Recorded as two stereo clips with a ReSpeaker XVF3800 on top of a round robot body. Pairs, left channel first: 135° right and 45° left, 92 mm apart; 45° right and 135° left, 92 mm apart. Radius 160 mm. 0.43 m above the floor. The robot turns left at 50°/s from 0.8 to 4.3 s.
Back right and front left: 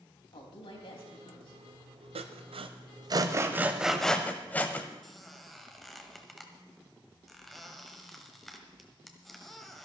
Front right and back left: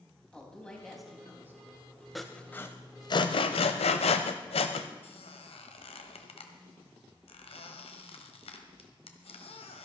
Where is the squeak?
45° right, 1.4 m.